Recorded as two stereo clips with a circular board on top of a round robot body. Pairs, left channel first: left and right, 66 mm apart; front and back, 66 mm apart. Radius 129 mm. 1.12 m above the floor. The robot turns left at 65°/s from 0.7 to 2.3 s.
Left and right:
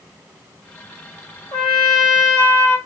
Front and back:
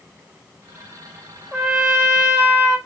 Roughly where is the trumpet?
Left.